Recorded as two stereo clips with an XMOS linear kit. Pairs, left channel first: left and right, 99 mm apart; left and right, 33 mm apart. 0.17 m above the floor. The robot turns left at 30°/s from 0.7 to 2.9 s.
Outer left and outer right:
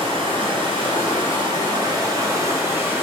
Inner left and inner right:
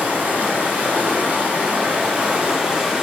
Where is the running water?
85° right, 1.0 m; by 3.0 s 150° right, 1.0 m.